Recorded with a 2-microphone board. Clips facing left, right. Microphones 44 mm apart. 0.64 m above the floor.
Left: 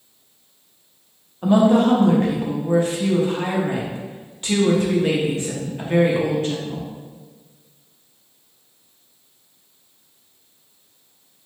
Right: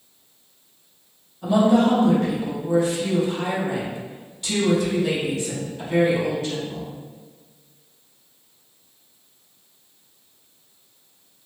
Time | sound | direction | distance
1.4 | a woman speaking | 35° left (ahead or behind) | 0.8 m